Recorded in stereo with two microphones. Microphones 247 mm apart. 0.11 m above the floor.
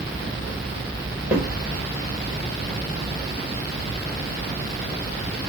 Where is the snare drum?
5° right (ahead or behind), 2.5 m.